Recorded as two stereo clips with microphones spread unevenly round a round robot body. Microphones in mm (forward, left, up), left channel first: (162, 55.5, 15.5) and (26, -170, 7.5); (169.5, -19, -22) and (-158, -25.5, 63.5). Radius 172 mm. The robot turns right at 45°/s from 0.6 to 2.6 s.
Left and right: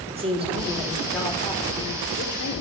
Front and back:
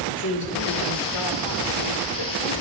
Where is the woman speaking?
55° right, 2.5 m; by 2.6 s 35° left, 2.5 m.